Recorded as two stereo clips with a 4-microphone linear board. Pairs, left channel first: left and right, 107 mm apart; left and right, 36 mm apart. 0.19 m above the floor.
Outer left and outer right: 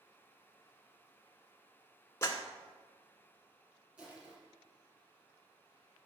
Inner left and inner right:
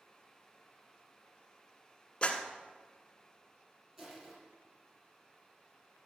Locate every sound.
2.2 s a clap: 25° left (ahead or behind), 1.6 m
4.0 s crushing: 15° right (ahead or behind), 6 m